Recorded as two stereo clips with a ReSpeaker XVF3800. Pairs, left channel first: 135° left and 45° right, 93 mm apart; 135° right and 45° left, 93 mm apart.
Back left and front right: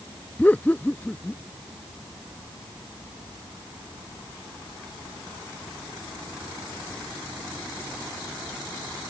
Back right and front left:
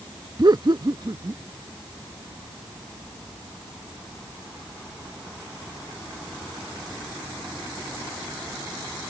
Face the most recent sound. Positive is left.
turn(degrees=70)